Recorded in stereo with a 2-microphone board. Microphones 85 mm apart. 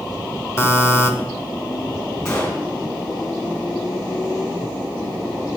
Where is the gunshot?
35° left (ahead or behind), 4.5 m.